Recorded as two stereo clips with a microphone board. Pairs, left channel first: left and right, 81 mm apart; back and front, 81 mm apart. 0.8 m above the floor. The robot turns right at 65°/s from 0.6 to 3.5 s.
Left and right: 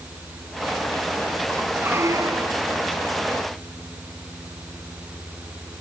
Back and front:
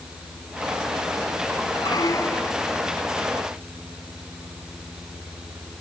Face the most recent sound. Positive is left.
turn(degrees=-45)